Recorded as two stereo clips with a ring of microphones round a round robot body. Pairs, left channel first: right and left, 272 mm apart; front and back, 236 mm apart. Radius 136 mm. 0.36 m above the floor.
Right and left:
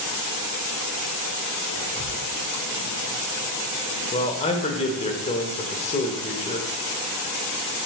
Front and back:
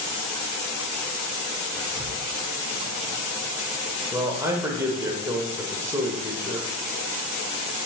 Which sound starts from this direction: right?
Whispering, at 1.8 s.